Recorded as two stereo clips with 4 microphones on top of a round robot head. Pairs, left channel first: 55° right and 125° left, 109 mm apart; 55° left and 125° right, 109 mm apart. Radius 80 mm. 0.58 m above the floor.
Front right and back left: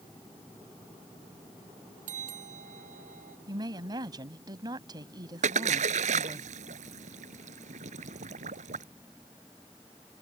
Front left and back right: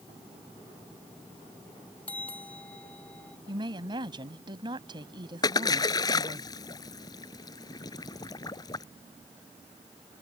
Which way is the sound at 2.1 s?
130° left.